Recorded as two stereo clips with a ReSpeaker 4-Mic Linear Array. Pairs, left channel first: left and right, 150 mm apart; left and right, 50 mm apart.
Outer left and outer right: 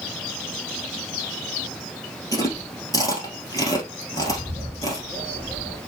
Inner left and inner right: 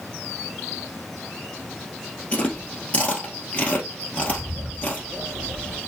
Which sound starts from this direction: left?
Chewing, at 2.3 s.